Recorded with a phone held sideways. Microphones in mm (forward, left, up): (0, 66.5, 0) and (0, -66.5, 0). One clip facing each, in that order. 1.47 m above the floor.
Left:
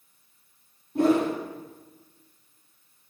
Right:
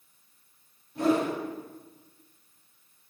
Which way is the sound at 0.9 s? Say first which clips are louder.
Left 4 dB; 50° left (ahead or behind).